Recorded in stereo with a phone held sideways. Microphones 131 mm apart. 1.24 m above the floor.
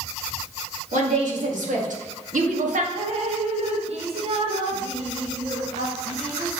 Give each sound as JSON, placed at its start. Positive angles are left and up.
{"t": 0.9, "sound": "a woman speaking", "side_deg": -75, "distance_m": 2.0}
{"t": 3.0, "sound": "dripping", "side_deg": -55, "distance_m": 1.3}